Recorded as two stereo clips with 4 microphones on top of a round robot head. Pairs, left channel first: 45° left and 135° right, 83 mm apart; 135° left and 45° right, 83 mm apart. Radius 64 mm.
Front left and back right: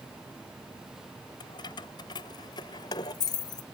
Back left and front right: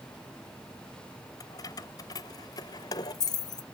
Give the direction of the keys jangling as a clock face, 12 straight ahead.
9 o'clock.